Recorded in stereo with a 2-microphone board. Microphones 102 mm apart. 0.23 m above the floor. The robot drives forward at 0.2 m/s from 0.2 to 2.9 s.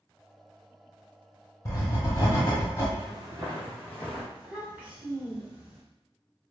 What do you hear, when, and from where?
1.6 s writing: 30° left (ahead or behind), 1.1 m; by 2.9 s 25° left (ahead or behind), 1.2 m
3.0 s footsteps: 50° right (ahead or behind), 0.9 m; by 4.2 s 5° right (ahead or behind), 1.6 m
4.3 s a child speaking: 15° right (ahead or behind), 1.4 m